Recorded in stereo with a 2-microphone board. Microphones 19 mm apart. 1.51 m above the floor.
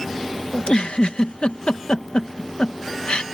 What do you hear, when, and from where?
0.5 s a giggle: 70° left (ahead or behind)